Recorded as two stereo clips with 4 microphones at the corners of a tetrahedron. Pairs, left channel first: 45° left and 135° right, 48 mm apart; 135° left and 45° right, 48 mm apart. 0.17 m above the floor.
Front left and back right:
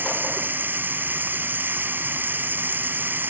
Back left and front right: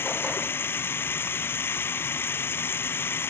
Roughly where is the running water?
Behind.